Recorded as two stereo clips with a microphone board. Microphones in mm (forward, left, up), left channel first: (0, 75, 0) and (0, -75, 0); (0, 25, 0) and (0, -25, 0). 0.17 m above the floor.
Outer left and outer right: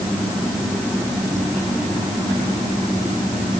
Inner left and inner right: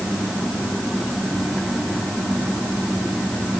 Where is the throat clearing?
I don't hear throat clearing.